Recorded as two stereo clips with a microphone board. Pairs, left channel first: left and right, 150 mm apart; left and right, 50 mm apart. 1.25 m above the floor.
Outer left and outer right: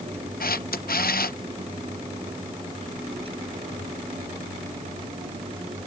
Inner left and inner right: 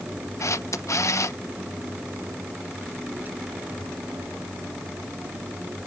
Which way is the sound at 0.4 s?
80° left.